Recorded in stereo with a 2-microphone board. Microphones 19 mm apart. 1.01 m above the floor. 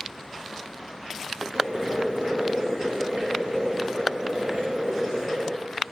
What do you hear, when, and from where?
1.5 s boiling: 50° right (ahead or behind), 1.3 m